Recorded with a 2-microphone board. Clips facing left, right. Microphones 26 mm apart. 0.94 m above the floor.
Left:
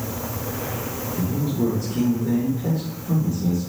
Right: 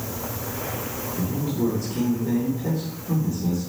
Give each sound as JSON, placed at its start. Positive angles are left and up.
{"t": 1.2, "sound": "a man speaking", "side_deg": 15, "distance_m": 1.0}